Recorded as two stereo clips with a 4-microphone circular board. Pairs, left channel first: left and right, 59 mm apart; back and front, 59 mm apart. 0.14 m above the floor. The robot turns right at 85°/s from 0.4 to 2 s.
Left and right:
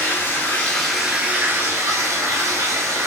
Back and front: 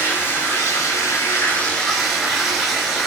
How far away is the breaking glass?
I don't hear breaking glass.